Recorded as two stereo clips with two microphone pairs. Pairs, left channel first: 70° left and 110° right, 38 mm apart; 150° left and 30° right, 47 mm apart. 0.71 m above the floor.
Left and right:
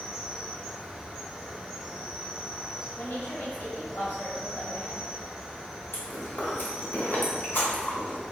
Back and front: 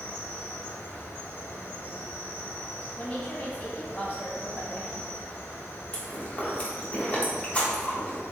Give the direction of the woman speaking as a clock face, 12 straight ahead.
9 o'clock.